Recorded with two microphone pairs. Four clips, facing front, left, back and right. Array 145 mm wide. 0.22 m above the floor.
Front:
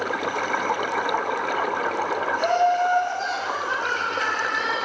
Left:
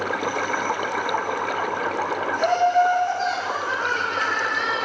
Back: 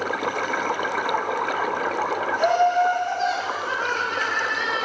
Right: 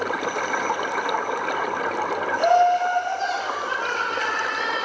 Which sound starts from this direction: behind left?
Laughter, at 2.4 s.